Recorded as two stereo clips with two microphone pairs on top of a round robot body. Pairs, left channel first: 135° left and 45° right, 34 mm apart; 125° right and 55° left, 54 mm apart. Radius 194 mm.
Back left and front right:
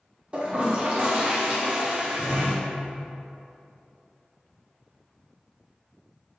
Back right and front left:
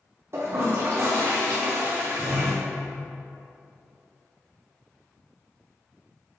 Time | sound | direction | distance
0.3 | a toilet flushing | 15° left | 1.2 m